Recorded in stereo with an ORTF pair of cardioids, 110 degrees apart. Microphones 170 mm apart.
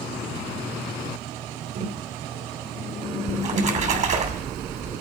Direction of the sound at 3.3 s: 45° right.